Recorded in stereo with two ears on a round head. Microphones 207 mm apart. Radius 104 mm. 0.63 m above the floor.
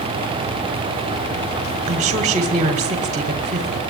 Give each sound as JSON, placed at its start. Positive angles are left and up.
{"t": 1.9, "sound": "a woman speaking", "side_deg": -30, "distance_m": 2.0}